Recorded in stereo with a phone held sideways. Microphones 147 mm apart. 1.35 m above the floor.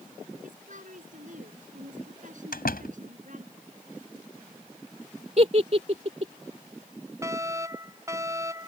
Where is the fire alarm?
20° right (ahead or behind).